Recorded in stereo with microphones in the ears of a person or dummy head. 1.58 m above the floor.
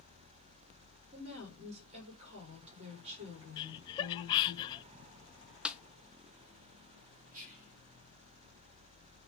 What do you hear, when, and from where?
1.1 s a woman speaking: 35° right (ahead or behind), 6 m
3.6 s laughter: 25° left (ahead or behind), 0.6 m
5.7 s a snare drum: 5° right (ahead or behind), 0.6 m
7.3 s whispering: 45° right (ahead or behind), 4 m